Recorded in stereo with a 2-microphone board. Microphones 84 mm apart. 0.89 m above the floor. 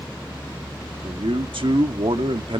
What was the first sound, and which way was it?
A man speaking, 80° right.